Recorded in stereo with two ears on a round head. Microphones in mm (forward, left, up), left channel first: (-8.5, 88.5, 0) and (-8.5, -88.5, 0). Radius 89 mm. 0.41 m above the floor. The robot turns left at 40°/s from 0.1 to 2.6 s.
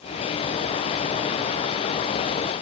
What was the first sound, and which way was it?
Only background noise.